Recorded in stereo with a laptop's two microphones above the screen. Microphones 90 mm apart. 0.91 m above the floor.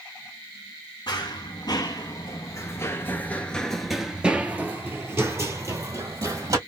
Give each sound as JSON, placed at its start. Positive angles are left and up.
{"t": 1.1, "sound": "running footsteps", "side_deg": 55, "distance_m": 1.6}